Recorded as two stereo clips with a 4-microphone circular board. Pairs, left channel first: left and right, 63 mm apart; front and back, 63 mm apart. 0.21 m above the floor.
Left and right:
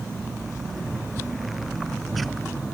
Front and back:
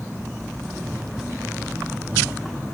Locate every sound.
1.6 s keys jangling: 55° left, 9 m